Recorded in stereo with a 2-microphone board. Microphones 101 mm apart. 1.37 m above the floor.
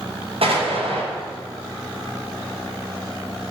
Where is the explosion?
70° right (ahead or behind), 5 m.